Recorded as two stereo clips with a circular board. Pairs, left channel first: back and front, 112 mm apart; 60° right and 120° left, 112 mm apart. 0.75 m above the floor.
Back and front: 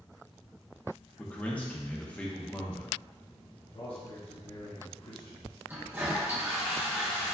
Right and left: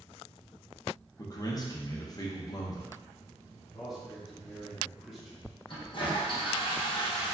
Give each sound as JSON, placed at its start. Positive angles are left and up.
{"t": 1.2, "sound": "a man speaking", "azimuth_deg": -105, "distance_m": 0.7}
{"t": 3.7, "sound": "a man speaking", "azimuth_deg": -150, "distance_m": 1.0}
{"t": 5.7, "sound": "a toilet flushing", "azimuth_deg": -65, "distance_m": 1.0}